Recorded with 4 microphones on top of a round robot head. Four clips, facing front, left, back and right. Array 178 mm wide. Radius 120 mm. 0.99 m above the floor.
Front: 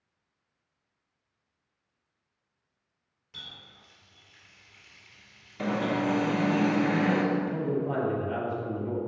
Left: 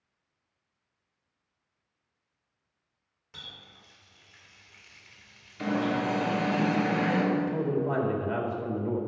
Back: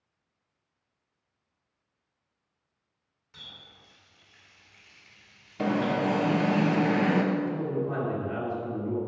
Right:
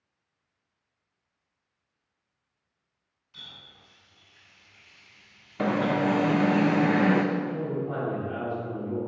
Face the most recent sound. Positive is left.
turn(degrees=65)